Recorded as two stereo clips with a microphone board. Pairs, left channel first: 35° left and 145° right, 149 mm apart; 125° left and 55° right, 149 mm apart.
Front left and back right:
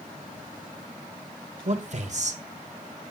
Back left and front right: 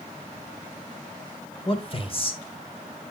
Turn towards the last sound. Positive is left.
turn(degrees=175)